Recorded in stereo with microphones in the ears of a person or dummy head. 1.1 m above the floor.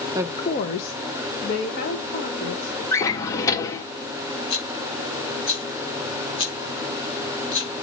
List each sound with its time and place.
0.1 s a woman speaking: 15° right (ahead or behind), 0.5 m; by 2.8 s 70° left (ahead or behind), 4 m
2.9 s a drawer: 15° left (ahead or behind), 1.1 m
4.5 s a rattle: 70° left (ahead or behind), 4 m